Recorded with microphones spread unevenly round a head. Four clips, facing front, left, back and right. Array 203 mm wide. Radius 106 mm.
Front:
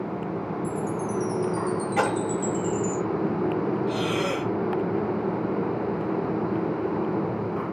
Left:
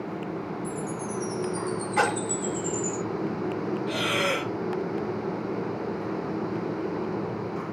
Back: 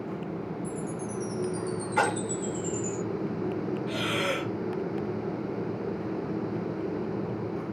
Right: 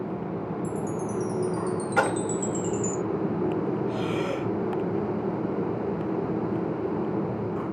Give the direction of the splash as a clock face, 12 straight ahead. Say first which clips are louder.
Even, front 1 dB; 2 o'clock.